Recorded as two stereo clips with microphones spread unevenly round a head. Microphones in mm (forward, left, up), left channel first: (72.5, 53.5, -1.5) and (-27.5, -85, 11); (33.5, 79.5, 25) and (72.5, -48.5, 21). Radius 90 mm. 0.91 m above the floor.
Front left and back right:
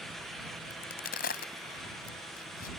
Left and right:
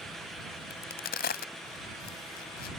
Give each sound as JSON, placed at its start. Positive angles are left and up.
{"t": 0.7, "sound": "a crack", "azimuth_deg": 100}